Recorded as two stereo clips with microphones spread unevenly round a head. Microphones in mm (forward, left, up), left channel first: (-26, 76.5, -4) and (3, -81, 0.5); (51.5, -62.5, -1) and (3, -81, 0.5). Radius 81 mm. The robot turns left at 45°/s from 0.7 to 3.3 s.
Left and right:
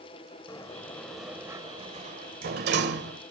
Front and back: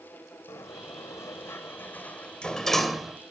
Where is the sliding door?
30° left, 1.8 m; by 3.2 s 85° right, 1.8 m.